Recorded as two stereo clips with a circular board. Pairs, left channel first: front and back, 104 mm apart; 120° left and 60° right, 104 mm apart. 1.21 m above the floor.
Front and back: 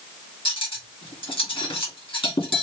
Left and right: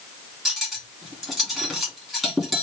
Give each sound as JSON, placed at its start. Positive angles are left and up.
{"t": 0.5, "sound": "cutlery clinking", "azimuth_deg": 30, "distance_m": 1.8}